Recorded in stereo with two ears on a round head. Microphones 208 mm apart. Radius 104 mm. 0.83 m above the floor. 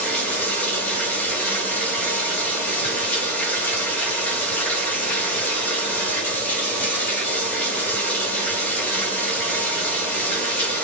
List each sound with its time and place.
0.0 s running water: 5° left (ahead or behind), 4 m